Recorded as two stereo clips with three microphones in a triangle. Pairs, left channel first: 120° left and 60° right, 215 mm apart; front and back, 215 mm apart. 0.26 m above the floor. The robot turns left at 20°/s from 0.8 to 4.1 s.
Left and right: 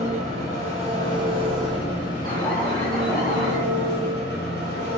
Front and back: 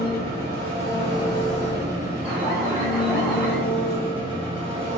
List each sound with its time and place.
0.0 s an engine running: 170° right, 1.3 m; by 5.0 s 125° left, 1.3 m
2.2 s an alarm: 100° left, 1.6 m; by 3.6 s 70° left, 1.6 m